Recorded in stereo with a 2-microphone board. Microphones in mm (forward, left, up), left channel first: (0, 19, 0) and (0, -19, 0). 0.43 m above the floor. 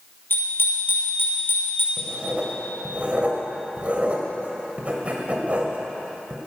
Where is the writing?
35° right (ahead or behind), 2.5 m.